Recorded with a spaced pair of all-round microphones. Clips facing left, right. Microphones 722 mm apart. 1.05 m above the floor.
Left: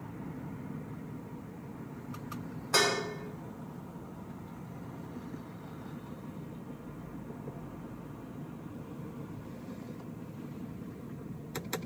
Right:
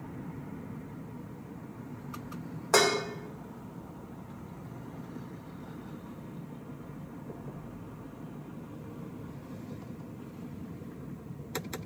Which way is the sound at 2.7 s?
70° right (ahead or behind).